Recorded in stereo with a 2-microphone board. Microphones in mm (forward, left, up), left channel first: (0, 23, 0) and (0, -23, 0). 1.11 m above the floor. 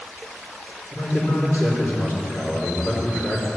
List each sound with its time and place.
0.9 s a man speaking: 75° left (ahead or behind), 4 m